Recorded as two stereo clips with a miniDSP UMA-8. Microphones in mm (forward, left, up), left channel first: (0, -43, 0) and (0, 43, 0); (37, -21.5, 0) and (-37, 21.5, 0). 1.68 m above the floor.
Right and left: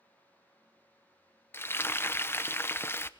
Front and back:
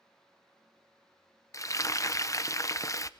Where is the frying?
45° right, 0.7 m.